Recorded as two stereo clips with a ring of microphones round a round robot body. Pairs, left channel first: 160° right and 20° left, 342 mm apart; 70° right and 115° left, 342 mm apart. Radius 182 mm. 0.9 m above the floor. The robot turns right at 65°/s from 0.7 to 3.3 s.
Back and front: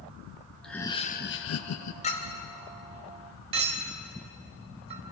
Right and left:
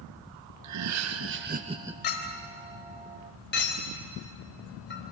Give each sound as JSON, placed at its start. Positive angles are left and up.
{"t": 0.6, "sound": "laughter", "azimuth_deg": 115, "distance_m": 1.1}
{"t": 2.0, "sound": "a clink", "azimuth_deg": -90, "distance_m": 3.5}